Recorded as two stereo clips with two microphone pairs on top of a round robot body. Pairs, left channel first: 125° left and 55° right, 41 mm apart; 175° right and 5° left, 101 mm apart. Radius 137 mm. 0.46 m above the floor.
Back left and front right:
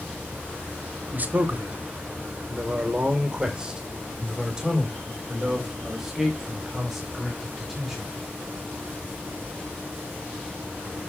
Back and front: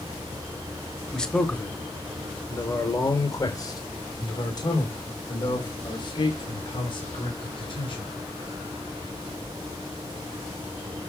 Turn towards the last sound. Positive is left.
turn(degrees=-140)